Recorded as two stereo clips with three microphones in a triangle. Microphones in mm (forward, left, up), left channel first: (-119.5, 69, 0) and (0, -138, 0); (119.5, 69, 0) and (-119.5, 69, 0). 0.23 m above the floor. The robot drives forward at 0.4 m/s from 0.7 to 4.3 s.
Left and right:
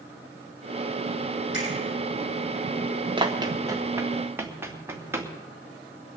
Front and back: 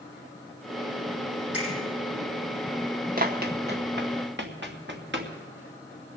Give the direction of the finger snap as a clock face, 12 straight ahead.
7 o'clock.